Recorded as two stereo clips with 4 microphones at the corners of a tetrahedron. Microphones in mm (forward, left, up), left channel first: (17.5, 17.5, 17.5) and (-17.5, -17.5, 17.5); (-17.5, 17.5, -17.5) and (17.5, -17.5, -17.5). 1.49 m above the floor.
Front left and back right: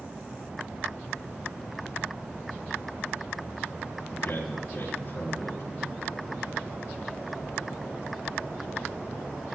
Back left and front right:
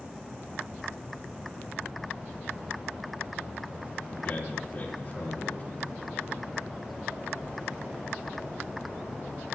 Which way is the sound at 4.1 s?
90° left.